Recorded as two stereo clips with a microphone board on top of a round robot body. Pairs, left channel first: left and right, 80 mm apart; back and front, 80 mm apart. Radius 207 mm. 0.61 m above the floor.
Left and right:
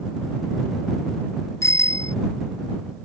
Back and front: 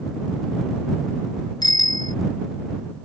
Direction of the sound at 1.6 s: 145° left.